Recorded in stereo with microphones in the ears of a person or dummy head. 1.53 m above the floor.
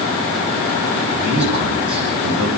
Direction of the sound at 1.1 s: 10° right (ahead or behind).